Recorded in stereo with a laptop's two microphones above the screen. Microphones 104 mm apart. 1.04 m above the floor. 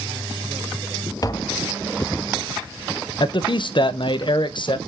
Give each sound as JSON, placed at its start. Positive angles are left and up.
{"t": 1.2, "sound": "tapping", "side_deg": 35, "distance_m": 0.5}
{"t": 3.2, "sound": "a man speaking", "side_deg": 55, "distance_m": 0.6}